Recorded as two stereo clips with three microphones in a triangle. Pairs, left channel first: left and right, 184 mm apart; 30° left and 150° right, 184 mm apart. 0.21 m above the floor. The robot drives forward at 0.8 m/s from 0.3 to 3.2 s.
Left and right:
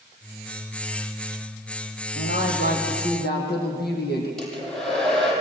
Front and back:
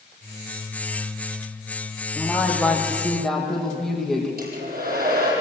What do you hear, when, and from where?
2.1 s a woman speaking: 110° left, 7 m; by 4.3 s 115° left, 7 m
4.4 s a hair dryer: 175° left, 8.5 m